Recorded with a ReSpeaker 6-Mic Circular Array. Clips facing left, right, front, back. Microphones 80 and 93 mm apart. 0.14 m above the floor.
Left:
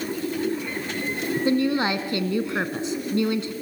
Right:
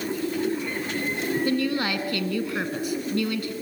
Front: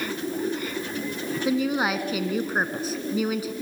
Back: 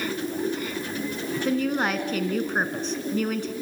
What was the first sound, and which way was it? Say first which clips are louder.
A woman speaking: left 4 dB, front 1 dB; 75° left.